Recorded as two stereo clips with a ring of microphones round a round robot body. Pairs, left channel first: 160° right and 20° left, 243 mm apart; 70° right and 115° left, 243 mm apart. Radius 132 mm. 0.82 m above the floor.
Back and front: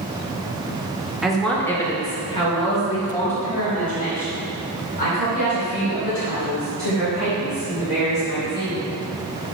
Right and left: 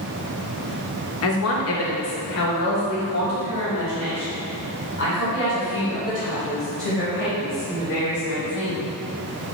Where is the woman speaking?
65° right, 1.0 m; by 8.8 s 110° right, 5 m.